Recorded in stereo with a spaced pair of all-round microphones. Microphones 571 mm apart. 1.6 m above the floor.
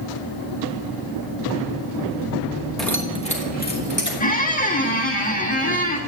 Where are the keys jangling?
Centre (ahead or behind), 1.2 m; by 4.1 s 20° left (ahead or behind), 2.5 m.